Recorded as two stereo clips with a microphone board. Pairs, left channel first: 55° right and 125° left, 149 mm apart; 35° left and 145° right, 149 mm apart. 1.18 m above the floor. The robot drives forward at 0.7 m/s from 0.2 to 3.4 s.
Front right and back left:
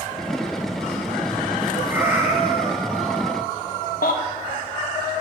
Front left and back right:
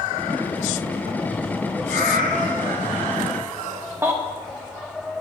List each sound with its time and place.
1.9 s a cat meowing: 160° right, 3.5 m; by 3.3 s 165° right, 4 m
4.0 s a baby crying: 75° right, 1.8 m